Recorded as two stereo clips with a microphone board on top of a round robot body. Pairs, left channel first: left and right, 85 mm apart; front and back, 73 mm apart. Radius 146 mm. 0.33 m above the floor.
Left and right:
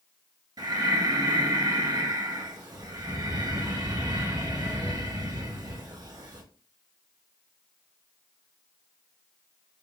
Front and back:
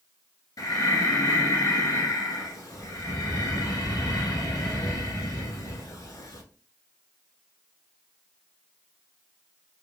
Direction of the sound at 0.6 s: 45° right.